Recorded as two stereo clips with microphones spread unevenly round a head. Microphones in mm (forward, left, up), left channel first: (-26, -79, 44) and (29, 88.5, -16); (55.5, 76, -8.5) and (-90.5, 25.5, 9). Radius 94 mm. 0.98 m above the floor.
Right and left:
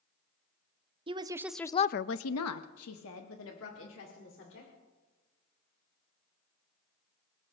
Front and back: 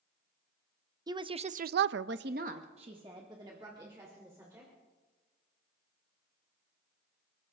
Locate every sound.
1.1 s a woman speaking: 130° left, 0.9 m; by 4.7 s 85° right, 3 m